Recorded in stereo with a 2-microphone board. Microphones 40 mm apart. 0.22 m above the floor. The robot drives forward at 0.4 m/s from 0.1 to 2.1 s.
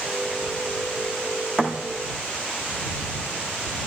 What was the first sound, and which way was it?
A thud, 15° left (ahead or behind).